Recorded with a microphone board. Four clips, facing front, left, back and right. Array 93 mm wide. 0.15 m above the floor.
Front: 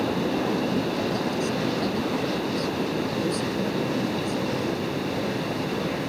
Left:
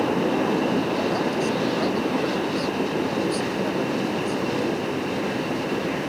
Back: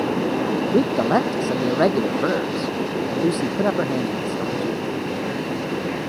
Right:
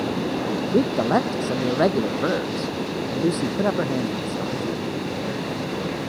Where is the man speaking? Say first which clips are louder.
Right 3 dB, back 8 dB; 155° right.